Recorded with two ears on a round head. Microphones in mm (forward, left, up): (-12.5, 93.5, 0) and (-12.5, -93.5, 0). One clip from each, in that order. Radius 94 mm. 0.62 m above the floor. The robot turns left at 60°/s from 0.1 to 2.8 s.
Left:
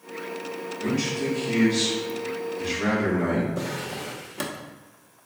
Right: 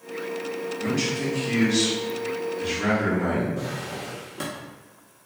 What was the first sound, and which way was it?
A man speaking, 35° right.